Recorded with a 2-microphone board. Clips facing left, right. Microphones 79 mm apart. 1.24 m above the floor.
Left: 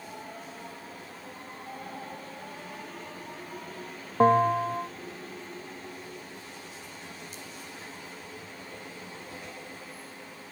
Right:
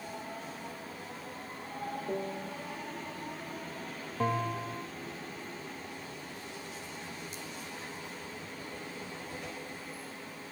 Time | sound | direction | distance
2.1 | a piano | 70° right (ahead or behind) | ?
4.2 | a bell | 50° left (ahead or behind) | ?